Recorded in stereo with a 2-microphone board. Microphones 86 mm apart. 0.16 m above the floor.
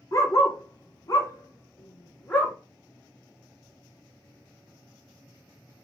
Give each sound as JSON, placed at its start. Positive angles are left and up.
{"t": 0.1, "sound": "a dog barking", "side_deg": 35, "distance_m": 0.9}